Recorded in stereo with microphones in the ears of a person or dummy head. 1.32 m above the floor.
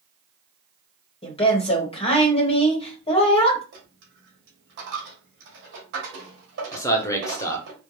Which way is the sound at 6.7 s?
20° left (ahead or behind).